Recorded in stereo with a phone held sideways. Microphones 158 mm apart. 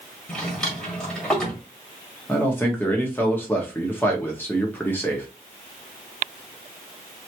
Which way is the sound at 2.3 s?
15° left (ahead or behind).